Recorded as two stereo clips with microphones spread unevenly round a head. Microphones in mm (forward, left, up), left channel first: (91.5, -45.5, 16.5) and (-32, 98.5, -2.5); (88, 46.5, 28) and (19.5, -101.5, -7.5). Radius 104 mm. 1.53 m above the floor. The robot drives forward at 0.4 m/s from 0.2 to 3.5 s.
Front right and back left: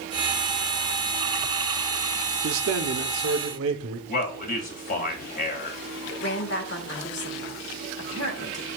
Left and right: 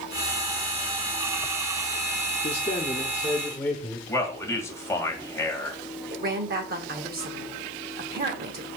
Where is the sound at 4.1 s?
10° right, 2 m.